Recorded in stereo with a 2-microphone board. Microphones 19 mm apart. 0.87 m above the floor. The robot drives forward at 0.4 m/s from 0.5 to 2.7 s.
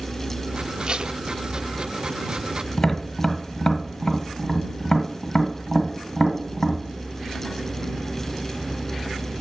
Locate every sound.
0.9 s tape being pulled: 50° right (ahead or behind), 0.6 m
2.8 s tapping: 30° left (ahead or behind), 1.3 m